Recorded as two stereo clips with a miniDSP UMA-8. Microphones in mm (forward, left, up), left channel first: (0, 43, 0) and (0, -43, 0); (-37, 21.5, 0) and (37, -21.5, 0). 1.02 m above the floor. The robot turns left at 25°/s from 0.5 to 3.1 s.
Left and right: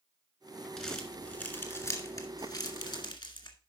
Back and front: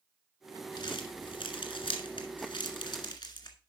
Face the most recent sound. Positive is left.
turn(degrees=115)